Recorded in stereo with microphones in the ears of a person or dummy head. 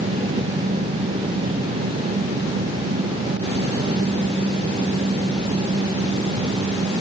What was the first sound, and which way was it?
Only background noise.